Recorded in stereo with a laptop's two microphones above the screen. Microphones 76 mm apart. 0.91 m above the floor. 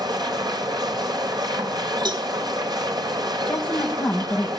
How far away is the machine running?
About 3 m.